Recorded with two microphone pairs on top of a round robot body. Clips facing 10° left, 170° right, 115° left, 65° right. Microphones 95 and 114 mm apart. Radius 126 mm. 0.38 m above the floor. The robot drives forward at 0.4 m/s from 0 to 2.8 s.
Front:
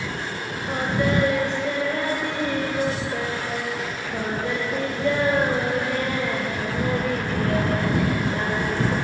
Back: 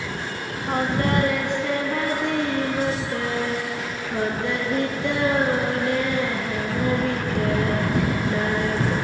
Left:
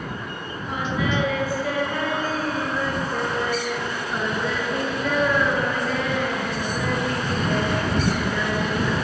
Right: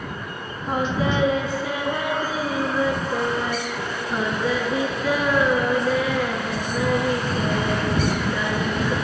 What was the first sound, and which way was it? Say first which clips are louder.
Singing: back 1 dB, right 3 dB; 120° right.